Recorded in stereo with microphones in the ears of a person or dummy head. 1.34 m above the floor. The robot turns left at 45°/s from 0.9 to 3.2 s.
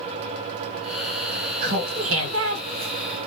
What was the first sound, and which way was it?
Laughter, 65° right.